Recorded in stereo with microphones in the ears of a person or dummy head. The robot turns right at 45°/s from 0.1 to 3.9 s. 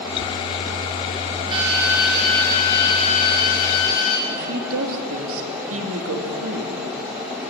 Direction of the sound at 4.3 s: 75° right (ahead or behind).